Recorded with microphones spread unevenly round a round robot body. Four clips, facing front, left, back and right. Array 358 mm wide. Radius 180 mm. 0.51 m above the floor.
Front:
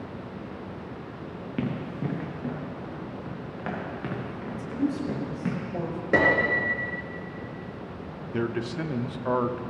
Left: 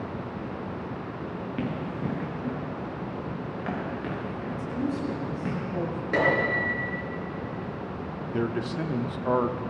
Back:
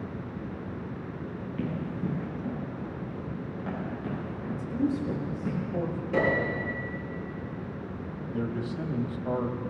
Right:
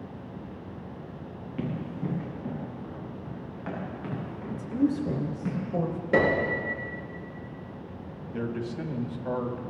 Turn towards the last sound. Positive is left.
turn(degrees=60)